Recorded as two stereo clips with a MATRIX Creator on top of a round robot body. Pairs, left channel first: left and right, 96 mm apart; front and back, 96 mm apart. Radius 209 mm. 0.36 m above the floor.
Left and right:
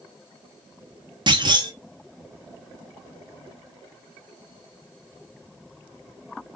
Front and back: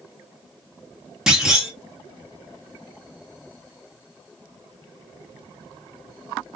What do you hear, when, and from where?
1.3 s a clunk: 95° right, 1.4 m